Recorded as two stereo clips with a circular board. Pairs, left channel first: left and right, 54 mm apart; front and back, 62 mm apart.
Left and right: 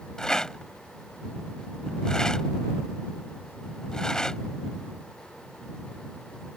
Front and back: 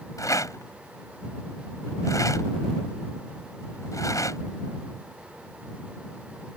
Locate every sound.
0.2 s a rattle: 10° left